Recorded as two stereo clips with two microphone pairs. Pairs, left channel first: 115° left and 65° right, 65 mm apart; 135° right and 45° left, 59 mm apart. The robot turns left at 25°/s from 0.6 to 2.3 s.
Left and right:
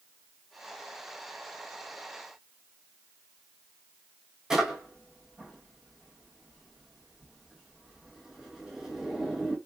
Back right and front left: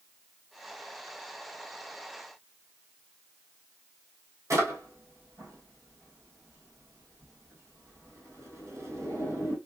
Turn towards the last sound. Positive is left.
turn(degrees=15)